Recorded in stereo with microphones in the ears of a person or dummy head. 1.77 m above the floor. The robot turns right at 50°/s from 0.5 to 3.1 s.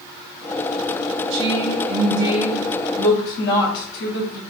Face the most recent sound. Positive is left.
turn(degrees=30)